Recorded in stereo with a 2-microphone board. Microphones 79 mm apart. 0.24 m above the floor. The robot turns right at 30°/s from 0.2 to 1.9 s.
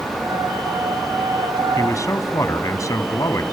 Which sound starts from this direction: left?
A man speaking, at 1.8 s.